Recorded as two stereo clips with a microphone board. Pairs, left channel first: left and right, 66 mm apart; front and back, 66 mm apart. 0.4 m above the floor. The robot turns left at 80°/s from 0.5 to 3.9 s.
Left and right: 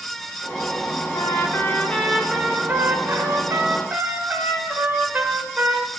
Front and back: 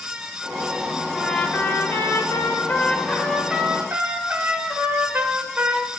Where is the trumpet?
85° left, 0.9 m; by 5.9 s 135° right, 0.9 m.